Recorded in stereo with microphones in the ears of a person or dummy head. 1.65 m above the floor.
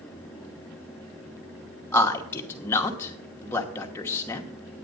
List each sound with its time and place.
1.9 s a man speaking: 15° left (ahead or behind), 1.1 m